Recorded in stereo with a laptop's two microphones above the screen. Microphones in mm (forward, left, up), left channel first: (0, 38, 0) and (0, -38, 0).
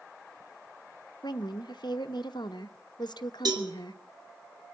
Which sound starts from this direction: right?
A cowbell, at 3.5 s.